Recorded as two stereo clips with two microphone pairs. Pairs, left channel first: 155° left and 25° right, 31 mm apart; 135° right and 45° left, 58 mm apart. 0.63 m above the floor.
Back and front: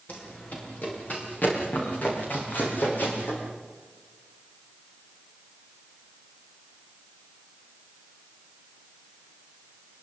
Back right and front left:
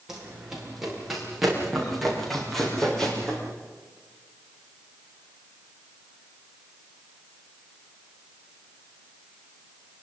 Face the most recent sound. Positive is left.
turn(degrees=145)